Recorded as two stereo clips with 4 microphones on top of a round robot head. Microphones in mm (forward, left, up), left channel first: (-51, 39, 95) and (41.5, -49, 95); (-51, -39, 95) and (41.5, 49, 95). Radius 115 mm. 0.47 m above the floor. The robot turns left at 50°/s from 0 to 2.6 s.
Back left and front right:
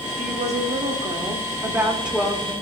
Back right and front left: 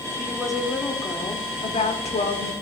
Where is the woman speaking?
30° right, 1.5 m; by 2.5 s 145° right, 1.5 m.